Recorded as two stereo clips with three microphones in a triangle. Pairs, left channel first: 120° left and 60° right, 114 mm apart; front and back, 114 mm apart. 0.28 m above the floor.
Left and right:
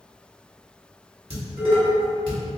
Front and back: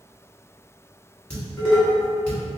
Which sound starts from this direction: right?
Dishes clattering, at 1.3 s.